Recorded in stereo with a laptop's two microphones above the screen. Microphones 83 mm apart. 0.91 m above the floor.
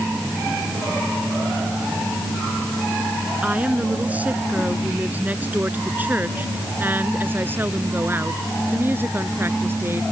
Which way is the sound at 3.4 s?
20° right (ahead or behind).